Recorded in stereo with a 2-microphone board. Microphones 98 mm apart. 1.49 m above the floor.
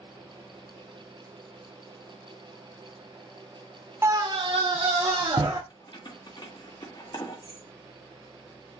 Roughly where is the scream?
Right.